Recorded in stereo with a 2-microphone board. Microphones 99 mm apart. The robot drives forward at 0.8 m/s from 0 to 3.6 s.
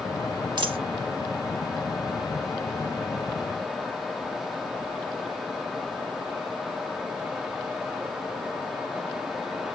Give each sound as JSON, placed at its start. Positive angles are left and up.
{"t": 0.6, "sound": "a dropped coin", "side_deg": -50, "distance_m": 0.6}